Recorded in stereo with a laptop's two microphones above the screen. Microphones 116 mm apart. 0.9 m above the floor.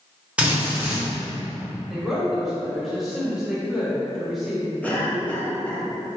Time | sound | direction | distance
0.4 | a drill | 10° right (ahead or behind) | 1.1 m
1.9 | a woman speaking | centre (ahead or behind) | 1.2 m
4.8 | a cough | 10° left (ahead or behind) | 0.6 m